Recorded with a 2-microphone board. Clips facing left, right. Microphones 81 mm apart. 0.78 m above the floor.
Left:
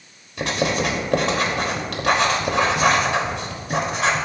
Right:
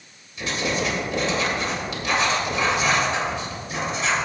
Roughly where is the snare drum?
No snare drum in this recording.